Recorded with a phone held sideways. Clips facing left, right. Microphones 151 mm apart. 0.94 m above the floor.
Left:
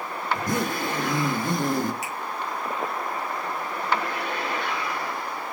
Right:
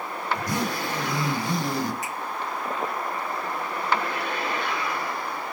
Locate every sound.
0.3 s a zipper: 50° left (ahead or behind), 1.2 m
2.0 s a finger snap: 85° left, 3.5 m